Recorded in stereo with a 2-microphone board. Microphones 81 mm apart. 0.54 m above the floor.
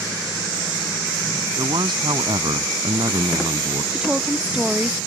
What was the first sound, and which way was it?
A man speaking, 65° right (ahead or behind).